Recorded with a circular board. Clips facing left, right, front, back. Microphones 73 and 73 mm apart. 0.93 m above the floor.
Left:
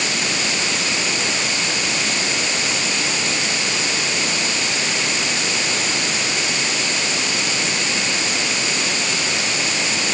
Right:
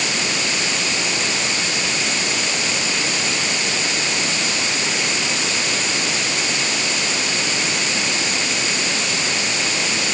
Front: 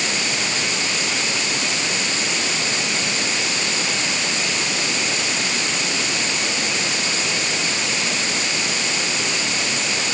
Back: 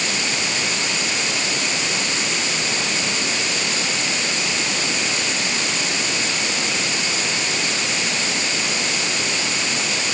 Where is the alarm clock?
I don't hear an alarm clock.